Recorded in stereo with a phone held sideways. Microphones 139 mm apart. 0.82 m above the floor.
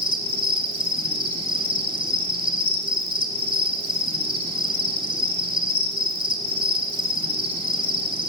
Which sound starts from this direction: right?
An insect, at 0.0 s.